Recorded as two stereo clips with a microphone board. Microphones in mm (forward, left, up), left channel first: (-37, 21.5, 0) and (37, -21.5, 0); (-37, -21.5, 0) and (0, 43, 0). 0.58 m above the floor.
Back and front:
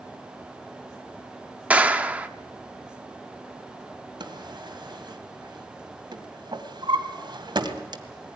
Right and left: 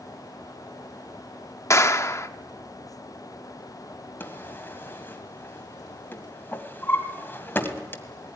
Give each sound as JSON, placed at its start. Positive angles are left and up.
{"t": 1.7, "sound": "a clap", "azimuth_deg": -100, "distance_m": 0.9}
{"t": 4.2, "sound": "a drawer", "azimuth_deg": -60, "distance_m": 1.8}